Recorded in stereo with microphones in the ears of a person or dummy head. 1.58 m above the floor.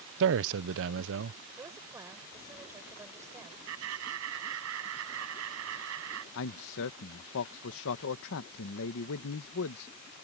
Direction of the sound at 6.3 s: 65° left (ahead or behind).